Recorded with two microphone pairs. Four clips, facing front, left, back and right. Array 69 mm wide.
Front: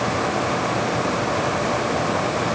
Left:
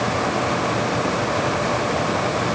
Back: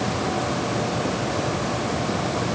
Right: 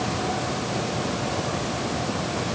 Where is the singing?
No singing in this recording.